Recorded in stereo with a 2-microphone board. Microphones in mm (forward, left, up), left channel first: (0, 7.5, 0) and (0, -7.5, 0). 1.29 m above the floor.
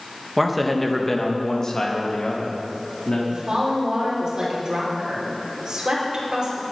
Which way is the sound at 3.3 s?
55° right (ahead or behind).